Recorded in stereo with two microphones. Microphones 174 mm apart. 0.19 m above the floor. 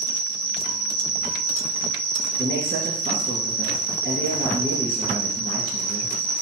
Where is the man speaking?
55° right (ahead or behind), 2.5 m.